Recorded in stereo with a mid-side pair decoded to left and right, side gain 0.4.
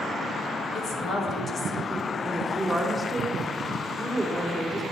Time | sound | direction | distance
0.7 | a woman speaking | 70° left | 2.5 m
2.2 | a woman speaking | 5° left | 4 m